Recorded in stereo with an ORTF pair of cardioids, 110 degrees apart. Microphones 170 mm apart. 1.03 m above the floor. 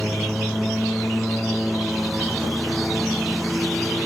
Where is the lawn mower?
Straight ahead.